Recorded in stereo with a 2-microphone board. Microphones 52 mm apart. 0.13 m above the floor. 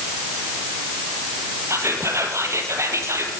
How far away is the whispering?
About 4 m.